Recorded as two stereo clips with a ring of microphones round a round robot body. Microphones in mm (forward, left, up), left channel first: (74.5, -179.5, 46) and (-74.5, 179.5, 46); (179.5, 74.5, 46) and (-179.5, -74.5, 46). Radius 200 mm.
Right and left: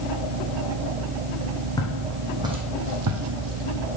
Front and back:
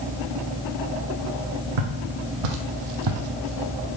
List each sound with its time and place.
1.8 s footsteps: 150° right, 1.6 m; by 3.9 s 125° left, 1.2 m